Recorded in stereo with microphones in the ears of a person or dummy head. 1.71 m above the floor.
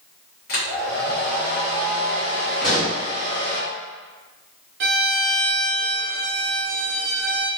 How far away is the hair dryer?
About 0.9 m.